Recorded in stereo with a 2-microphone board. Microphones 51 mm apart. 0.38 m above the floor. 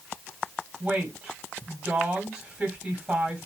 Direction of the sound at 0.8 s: 20° right (ahead or behind).